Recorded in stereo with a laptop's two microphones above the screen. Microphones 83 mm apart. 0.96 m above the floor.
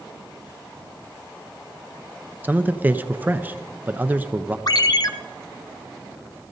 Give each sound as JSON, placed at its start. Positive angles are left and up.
{"t": 2.4, "sound": "a man speaking", "side_deg": -20, "distance_m": 0.5}
{"t": 4.7, "sound": "a ringtone", "side_deg": 50, "distance_m": 0.7}